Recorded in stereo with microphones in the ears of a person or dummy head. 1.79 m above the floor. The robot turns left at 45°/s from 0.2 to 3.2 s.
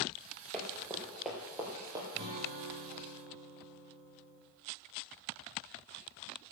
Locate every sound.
0.5 s running footsteps: 5° left (ahead or behind), 2.5 m; by 2.0 s 20° right (ahead or behind), 3 m
2.1 s a guitar: 35° right, 6 m; by 4.4 s 85° right, 6 m